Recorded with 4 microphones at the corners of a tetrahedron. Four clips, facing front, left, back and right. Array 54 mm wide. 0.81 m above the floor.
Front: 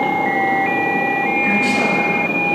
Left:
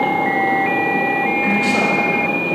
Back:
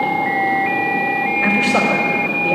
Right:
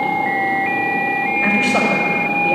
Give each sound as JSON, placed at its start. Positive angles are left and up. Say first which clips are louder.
{"t": 1.4, "sound": "a man speaking", "louder": "right 1 dB, back 3 dB", "azimuth_deg": -165, "distance_m": 3.0}